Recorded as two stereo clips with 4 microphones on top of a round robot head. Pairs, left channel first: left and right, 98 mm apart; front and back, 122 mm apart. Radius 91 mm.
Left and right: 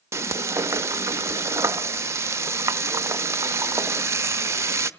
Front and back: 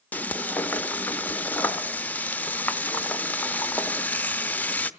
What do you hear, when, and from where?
0.1 s frying: 65° right, 0.7 m